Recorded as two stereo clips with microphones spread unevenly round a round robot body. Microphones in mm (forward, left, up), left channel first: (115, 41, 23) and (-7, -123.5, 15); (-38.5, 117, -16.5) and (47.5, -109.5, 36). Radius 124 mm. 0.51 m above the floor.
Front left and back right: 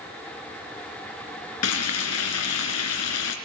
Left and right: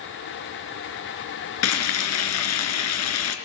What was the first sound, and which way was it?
Frying, 85° left.